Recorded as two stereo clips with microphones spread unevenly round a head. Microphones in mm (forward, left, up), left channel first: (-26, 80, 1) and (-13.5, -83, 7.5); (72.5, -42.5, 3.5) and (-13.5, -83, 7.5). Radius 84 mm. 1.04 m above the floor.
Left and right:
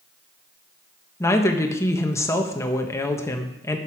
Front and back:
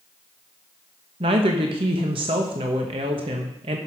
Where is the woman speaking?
165° left, 1.2 m.